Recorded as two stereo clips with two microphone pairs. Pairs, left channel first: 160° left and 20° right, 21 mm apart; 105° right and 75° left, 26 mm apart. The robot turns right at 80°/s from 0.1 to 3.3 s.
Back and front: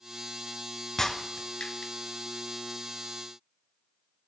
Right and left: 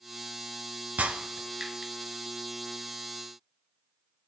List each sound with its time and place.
1.0 s breaking glass: 85° left, 1.3 m; by 1.9 s 160° left, 1.3 m